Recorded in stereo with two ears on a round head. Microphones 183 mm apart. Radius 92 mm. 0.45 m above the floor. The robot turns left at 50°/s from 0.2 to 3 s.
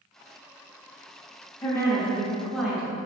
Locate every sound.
1.6 s a woman speaking: 15° left (ahead or behind), 0.7 m; by 3.0 s 10° right (ahead or behind), 0.7 m